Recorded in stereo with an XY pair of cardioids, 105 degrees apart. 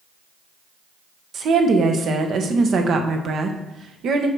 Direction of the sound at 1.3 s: 60° right.